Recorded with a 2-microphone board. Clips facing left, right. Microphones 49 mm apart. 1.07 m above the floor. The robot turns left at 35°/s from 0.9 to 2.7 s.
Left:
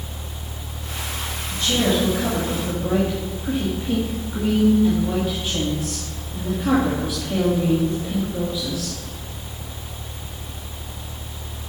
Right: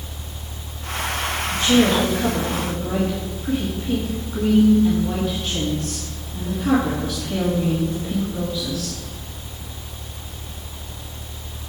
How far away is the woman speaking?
About 1.8 m.